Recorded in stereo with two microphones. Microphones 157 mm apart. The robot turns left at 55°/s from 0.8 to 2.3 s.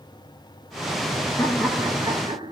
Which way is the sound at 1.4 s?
20° left.